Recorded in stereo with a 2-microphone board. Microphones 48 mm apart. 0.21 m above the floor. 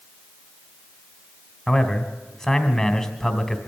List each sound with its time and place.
1.7 s a man speaking: 10° left (ahead or behind), 1.8 m